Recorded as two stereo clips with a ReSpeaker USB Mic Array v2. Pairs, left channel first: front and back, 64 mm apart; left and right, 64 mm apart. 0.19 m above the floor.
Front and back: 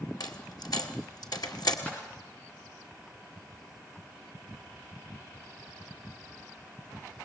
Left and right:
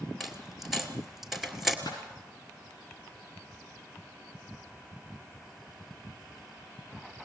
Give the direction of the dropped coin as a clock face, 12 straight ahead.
12 o'clock.